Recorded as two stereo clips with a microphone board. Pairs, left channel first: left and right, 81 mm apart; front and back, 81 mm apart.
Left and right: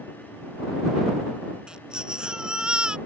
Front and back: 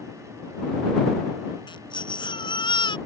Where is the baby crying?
10° right.